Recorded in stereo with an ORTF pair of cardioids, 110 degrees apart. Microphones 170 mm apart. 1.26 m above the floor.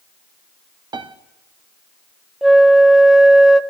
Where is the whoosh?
I don't hear a whoosh.